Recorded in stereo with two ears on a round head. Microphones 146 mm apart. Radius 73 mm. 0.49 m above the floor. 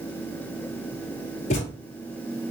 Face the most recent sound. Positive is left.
turn(degrees=45)  # may be behind; listen again after turning